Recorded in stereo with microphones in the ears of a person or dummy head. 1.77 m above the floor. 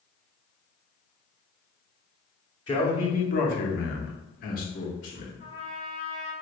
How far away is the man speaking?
About 0.9 m.